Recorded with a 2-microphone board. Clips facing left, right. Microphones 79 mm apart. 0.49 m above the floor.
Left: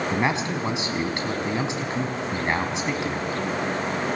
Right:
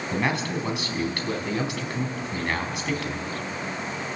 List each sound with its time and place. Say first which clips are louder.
0.1 s a man speaking: right 2 dB; 20° left (ahead or behind), 4.5 m